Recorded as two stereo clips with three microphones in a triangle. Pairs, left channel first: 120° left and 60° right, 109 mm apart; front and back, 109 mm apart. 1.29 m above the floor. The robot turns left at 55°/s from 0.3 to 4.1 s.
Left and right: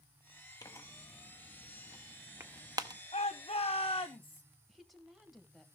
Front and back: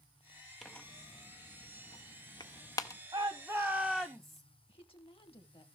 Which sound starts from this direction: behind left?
A shout, at 3.1 s.